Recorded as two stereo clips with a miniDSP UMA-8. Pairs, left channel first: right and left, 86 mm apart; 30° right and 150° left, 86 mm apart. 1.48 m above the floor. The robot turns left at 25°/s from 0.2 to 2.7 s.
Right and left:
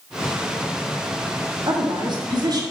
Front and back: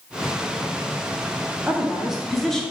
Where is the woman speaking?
75° left, 0.9 m; by 2.6 s 50° left, 0.9 m.